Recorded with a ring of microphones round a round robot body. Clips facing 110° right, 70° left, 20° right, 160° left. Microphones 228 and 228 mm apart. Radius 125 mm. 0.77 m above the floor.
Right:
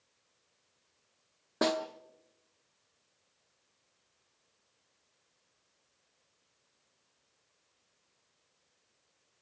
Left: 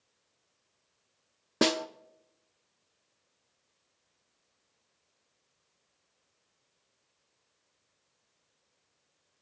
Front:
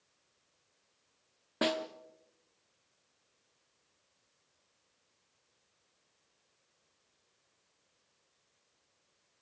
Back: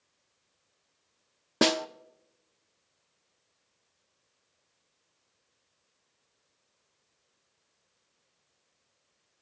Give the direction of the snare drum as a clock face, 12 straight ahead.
8 o'clock.